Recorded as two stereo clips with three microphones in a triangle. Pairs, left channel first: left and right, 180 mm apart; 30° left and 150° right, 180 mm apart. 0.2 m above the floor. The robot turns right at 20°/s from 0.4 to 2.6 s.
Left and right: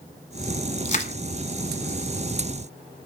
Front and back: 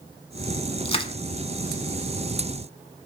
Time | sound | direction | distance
0.8 | crushing | 70° left | 1.1 m